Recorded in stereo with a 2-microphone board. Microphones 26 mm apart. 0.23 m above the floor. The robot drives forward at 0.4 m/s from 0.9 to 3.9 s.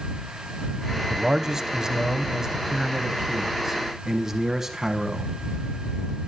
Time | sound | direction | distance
1.1 | a man speaking | 25° right (ahead or behind) | 1.1 m